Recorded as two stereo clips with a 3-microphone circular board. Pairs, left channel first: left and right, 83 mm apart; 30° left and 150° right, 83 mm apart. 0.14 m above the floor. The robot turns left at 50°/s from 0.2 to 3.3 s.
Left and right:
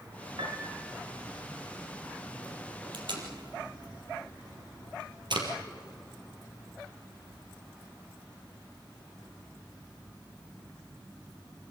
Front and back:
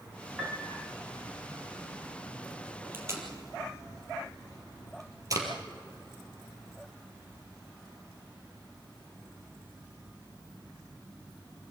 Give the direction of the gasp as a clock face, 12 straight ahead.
No gasp in this recording.